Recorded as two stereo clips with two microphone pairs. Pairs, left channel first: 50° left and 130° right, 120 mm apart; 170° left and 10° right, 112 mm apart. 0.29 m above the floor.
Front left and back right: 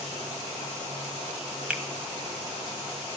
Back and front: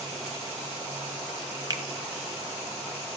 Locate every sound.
1.7 s a finger snap: 55° right, 1.6 m